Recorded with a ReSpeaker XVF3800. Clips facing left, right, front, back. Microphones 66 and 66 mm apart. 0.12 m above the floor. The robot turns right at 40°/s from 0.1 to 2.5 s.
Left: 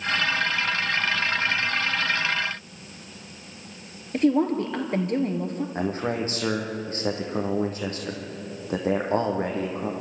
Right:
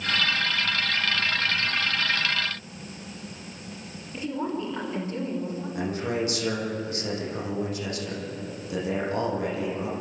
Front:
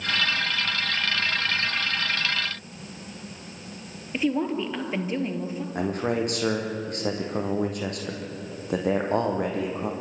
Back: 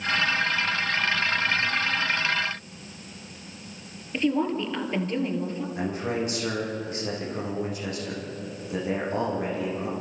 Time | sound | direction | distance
4.1 | a woman speaking | 80° left | 2.5 m
5.8 | a man speaking | 35° left | 4.5 m